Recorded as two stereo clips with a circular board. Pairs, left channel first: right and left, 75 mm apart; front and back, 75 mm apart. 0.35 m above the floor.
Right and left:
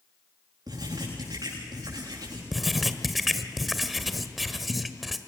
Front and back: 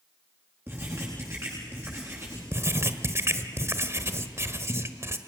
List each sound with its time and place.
0.7 s writing: 120° left, 9.5 m
2.5 s writing: straight behind, 1.3 m